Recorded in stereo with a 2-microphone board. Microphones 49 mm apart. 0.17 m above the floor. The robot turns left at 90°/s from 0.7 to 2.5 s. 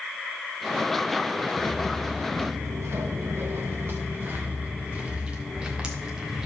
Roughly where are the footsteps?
Centre.